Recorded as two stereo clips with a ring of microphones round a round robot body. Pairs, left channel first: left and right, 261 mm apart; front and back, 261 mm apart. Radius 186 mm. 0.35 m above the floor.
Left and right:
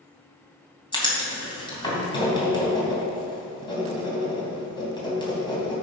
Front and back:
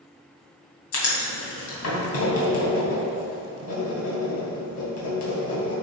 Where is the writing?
20° left, 3 m.